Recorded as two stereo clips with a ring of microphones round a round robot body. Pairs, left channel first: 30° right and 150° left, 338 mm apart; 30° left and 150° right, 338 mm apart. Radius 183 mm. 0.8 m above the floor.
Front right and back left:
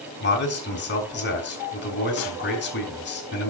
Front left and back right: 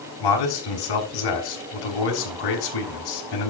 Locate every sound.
0.2 s a man speaking: 30° left, 6.5 m